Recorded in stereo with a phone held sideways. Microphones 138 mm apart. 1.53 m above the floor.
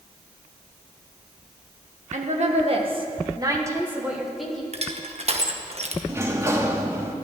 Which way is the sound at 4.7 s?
50° right (ahead or behind).